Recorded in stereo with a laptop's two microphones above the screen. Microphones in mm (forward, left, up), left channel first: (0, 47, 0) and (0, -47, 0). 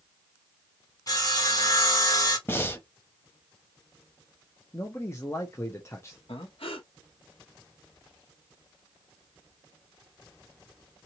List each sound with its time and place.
1.1 s sawing: 40° left (ahead or behind), 0.9 m
2.5 s breathing: 25° left (ahead or behind), 0.9 m
4.7 s a man speaking: 30° left (ahead or behind), 0.5 m
6.3 s breathing: 70° left (ahead or behind), 0.9 m